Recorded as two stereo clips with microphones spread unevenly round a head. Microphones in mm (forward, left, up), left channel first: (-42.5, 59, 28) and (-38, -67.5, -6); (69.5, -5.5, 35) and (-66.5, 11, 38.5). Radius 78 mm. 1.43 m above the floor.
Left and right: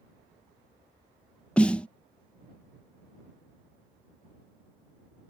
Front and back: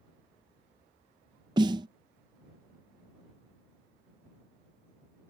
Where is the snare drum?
140° left.